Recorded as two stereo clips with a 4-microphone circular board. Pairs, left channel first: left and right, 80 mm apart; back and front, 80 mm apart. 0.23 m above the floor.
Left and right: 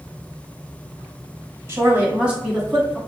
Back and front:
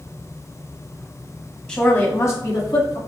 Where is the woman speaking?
110° right, 1.3 m; by 3.0 s straight behind, 2 m.